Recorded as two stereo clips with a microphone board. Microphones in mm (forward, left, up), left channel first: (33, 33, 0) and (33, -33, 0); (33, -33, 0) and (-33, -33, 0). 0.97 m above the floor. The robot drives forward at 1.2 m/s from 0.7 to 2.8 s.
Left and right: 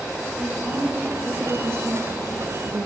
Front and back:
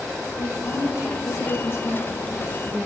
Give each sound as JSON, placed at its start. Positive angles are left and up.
{"t": 0.4, "sound": "a woman speaking", "azimuth_deg": -25, "distance_m": 2.5}